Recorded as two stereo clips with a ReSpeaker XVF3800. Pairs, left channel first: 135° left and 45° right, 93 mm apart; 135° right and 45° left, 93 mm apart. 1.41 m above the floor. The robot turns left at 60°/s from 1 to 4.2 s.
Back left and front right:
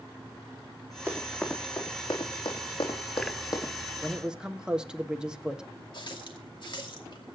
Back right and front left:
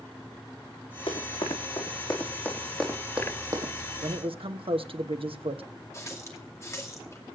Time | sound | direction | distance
1.1 | running footsteps | 110° right | 5 m
4.0 | a man speaking | 50° left | 1.2 m
5.9 | a running tap | 165° left | 2.5 m